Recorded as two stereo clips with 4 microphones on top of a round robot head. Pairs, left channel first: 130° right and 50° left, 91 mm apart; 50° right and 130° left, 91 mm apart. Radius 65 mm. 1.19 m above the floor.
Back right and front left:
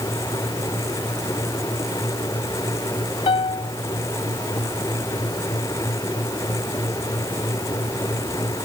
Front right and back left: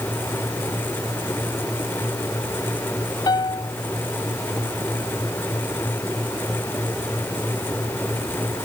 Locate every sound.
3.3 s a piano: 100° right